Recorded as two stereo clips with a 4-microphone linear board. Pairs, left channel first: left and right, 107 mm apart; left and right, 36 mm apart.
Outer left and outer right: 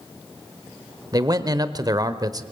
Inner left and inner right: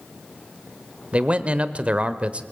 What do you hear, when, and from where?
1.1 s a man speaking: 35° right (ahead or behind), 1.0 m